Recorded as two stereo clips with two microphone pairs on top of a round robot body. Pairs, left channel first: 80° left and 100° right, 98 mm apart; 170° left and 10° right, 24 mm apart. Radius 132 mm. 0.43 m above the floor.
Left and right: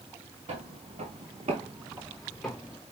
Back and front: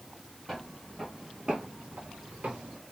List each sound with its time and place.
0.5 s footsteps: 105° right, 1.4 m; by 2.8 s 15° left, 1.1 m